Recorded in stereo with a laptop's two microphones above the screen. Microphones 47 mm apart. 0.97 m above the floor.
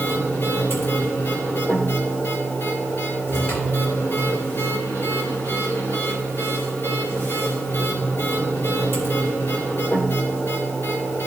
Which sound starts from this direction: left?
A machine running, at 0.0 s.